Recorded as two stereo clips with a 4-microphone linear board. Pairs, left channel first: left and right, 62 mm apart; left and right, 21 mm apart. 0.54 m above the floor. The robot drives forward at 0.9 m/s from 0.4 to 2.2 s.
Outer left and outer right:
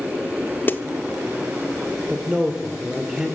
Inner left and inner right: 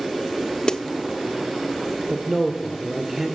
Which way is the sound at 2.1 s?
10° right (ahead or behind).